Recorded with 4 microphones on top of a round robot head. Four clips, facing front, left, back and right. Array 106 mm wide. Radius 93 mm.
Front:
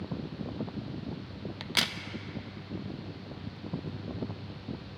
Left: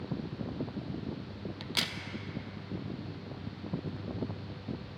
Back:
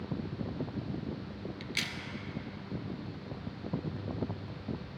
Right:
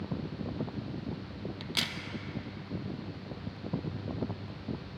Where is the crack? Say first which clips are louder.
Left 1 dB, front 5 dB; 5° left, 0.6 m.